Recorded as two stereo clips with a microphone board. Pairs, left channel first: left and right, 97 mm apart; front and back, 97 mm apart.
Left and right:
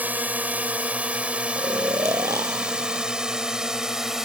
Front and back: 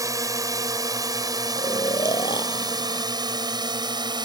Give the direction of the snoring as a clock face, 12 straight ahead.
1 o'clock.